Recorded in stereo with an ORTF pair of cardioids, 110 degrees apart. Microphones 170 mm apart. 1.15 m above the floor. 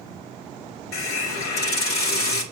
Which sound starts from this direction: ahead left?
A hiss, at 0.9 s.